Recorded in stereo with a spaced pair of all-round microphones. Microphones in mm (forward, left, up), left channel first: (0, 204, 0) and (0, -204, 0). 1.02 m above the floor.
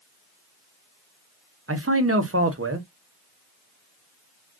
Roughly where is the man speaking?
Right.